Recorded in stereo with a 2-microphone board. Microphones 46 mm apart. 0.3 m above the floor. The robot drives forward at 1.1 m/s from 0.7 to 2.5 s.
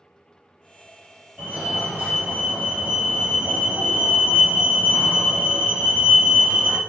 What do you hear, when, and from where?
1.4 s a fire alarm: 35° right (ahead or behind), 2.5 m